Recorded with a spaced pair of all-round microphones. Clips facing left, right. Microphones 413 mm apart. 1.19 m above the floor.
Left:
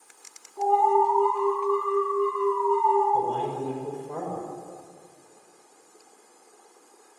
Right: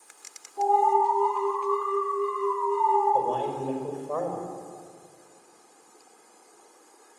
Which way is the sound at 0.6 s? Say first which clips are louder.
Left 2 dB; 5° left (ahead or behind).